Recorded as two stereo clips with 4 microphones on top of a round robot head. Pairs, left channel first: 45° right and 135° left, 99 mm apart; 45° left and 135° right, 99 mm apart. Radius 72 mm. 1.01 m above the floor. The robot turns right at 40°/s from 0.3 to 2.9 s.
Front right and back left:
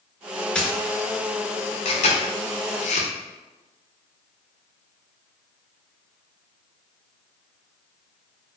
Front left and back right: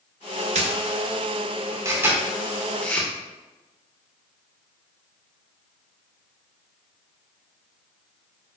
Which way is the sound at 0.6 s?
125° right.